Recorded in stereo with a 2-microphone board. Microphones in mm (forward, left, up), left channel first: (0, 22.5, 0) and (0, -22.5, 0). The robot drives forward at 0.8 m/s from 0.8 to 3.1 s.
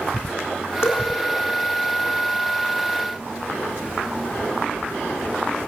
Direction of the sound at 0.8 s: 75° left (ahead or behind).